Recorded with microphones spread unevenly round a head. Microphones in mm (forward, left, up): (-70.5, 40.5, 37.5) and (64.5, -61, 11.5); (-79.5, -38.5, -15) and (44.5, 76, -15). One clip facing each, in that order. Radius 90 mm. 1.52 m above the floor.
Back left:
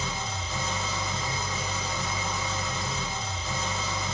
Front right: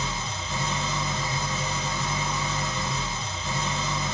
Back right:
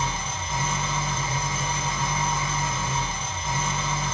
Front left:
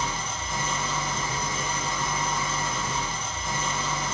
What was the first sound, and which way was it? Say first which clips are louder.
An engine running: front right 1 dB, back right 1 dB; 70° right.